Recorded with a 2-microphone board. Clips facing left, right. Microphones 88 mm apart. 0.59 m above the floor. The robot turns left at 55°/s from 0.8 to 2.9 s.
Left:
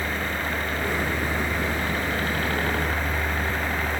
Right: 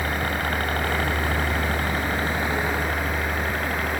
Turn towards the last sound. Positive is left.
turn(degrees=5)  # may be behind; listen again after turning